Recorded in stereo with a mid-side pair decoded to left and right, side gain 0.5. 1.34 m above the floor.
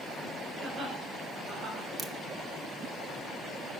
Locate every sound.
0.6 s laughter: 45° right, 5.5 m
2.0 s a crack: 35° right, 1.8 m